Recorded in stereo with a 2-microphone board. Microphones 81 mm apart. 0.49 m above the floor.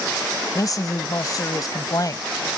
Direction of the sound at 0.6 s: 45° left (ahead or behind).